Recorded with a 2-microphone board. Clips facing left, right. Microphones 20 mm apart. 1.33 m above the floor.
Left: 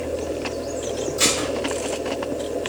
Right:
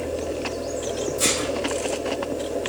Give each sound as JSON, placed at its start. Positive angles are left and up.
{"t": 1.2, "sound": "dishes clattering", "side_deg": 50, "distance_m": 2.5}